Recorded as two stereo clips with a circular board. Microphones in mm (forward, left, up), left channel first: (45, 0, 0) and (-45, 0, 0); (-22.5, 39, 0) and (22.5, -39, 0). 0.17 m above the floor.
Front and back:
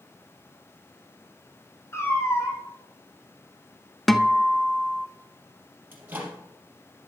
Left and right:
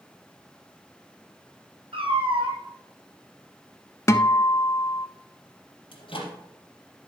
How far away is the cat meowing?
About 2.5 m.